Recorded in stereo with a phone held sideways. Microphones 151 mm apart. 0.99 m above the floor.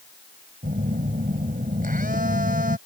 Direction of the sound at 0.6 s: 65° right (ahead or behind).